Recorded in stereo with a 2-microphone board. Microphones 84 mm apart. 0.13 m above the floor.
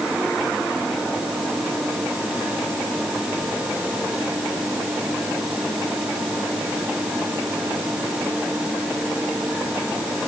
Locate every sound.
Only background noise.